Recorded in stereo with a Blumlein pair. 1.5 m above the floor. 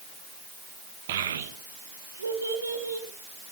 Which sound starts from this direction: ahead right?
A child speaking, at 1.1 s.